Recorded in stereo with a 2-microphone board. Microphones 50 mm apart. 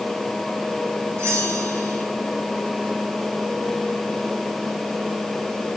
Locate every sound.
1.2 s a bell: 70° right (ahead or behind), 6.5 m